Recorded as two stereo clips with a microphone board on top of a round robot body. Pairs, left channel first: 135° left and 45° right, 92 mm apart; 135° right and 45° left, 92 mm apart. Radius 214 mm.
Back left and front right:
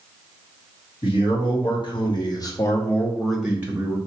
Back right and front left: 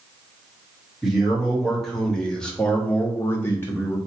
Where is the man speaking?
135° left, 1.7 m; by 4.0 s 80° right, 1.0 m.